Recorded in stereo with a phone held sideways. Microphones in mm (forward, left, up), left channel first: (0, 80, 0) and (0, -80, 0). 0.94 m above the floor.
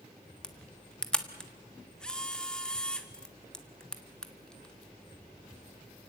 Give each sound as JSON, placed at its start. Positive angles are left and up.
{"t": 0.4, "sound": "a camera shutter", "side_deg": 5, "distance_m": 1.5}